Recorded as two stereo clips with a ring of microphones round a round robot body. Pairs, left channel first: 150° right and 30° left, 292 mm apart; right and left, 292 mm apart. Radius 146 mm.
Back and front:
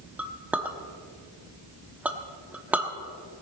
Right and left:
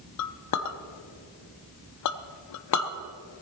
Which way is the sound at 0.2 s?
55° right.